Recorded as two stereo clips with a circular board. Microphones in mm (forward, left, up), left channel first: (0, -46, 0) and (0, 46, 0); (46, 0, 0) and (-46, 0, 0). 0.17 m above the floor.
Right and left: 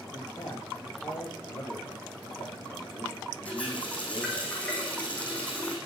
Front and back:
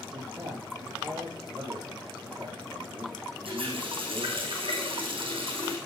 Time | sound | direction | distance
0.1 | a man speaking | 140° right | 9.5 m
1.5 | a man speaking | 130° right | 6.5 m
3.5 | a running tap | 165° right | 5.5 m